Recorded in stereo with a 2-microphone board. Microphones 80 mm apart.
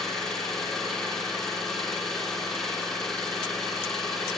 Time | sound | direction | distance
0.0 | an engine running | 5° left (ahead or behind) | 9 m